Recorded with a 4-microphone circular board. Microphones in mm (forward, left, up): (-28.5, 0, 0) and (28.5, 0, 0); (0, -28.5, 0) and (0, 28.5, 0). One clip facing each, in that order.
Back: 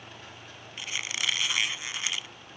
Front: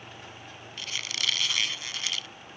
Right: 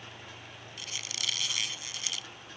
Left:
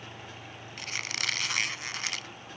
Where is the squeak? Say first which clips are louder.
Back 1 dB, left 6 dB; 115° left.